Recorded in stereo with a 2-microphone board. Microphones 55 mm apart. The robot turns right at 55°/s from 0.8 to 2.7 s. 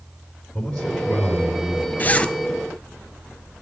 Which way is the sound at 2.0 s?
35° left (ahead or behind).